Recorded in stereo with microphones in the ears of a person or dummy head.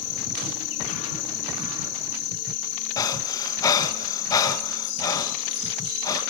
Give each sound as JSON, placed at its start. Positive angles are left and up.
{"t": 0.0, "sound": "an insect", "side_deg": 70, "distance_m": 3.5}
{"t": 3.0, "sound": "breathing", "side_deg": 25, "distance_m": 1.6}